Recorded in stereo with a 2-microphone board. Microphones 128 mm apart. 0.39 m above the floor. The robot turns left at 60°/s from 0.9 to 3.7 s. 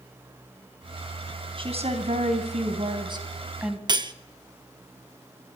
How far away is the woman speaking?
About 3.5 m.